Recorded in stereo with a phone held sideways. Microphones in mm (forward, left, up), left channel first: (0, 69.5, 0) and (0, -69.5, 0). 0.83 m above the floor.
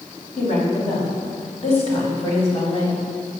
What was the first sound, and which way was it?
A woman speaking, 55° left (ahead or behind).